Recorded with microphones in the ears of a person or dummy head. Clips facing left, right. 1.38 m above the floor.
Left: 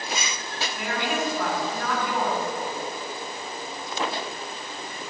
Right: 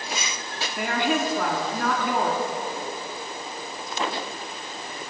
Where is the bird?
I don't hear a bird.